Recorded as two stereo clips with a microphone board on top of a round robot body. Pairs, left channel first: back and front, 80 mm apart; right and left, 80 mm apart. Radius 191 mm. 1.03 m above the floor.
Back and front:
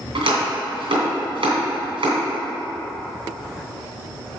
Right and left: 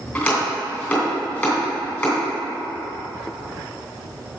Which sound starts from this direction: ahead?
Chopping, at 0.1 s.